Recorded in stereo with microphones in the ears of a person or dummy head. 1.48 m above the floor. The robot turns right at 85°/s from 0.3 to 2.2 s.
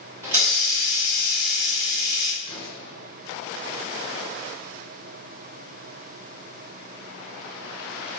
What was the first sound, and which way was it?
A hiss, 20° right.